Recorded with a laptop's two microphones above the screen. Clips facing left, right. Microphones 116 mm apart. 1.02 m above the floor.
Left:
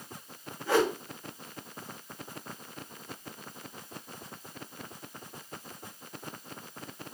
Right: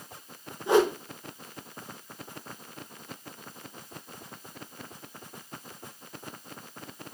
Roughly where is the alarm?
No alarm in this recording.